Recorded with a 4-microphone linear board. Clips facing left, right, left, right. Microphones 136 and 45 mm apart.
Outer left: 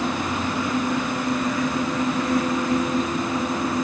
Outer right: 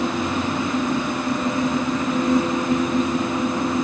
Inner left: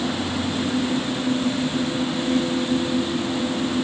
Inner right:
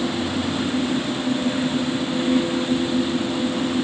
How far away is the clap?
I don't hear a clap.